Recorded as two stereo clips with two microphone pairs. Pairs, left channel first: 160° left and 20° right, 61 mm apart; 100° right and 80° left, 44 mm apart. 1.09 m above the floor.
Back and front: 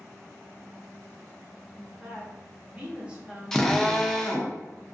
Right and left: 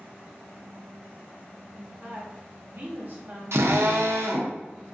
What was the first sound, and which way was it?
A woman speaking, 50° left.